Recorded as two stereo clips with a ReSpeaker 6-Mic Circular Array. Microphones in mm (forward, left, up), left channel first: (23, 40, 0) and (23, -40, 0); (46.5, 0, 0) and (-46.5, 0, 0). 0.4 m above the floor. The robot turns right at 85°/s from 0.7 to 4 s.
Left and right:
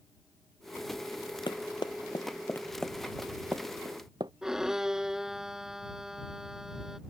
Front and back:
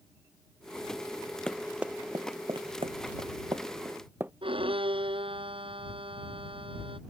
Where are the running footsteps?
80° left; by 4.3 s 110° right.